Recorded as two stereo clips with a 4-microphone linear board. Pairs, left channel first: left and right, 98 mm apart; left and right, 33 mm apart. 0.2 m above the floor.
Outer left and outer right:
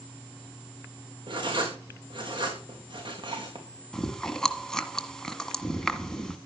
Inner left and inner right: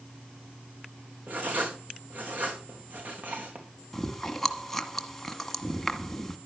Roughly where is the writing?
Right.